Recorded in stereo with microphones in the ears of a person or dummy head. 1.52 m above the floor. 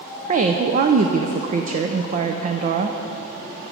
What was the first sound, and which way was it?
A woman speaking, 35° right (ahead or behind).